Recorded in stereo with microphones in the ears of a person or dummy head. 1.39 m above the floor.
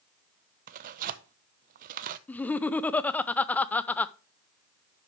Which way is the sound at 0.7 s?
45° right (ahead or behind).